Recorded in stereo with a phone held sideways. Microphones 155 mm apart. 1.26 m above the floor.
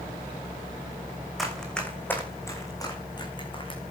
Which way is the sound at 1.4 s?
Centre (ahead or behind).